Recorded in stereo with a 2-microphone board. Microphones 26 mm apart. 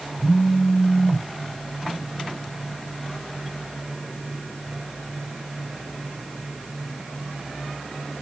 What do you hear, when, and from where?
0.2 s a phone buzzing: 40° left (ahead or behind), 4 m